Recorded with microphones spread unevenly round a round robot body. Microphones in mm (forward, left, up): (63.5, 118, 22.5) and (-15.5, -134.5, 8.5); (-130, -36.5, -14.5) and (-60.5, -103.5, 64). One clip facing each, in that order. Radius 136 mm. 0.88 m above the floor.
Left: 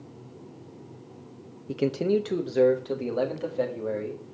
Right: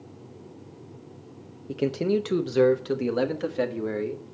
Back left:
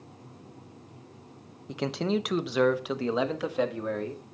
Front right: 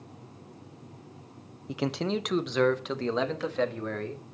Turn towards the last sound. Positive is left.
turn(degrees=-160)